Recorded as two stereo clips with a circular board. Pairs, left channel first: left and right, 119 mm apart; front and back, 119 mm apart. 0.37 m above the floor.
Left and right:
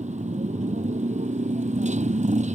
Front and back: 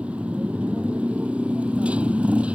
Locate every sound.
0.0 s a motorcycle: 100° right